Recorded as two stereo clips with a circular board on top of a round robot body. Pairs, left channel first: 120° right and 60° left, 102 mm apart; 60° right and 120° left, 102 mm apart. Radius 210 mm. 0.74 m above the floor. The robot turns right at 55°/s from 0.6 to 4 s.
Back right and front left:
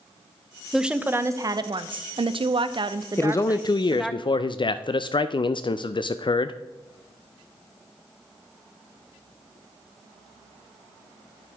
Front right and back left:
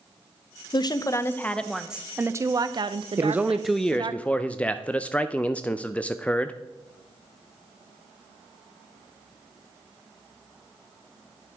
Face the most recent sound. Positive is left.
turn(degrees=-135)